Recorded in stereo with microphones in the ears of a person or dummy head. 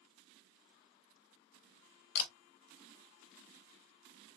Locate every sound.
2.1 s a camera shutter: 60° left (ahead or behind), 0.7 m